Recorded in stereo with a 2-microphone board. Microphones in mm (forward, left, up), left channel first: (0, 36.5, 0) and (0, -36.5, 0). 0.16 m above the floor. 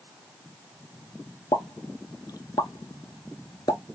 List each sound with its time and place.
1.5 s a pop: 70° left (ahead or behind), 0.6 m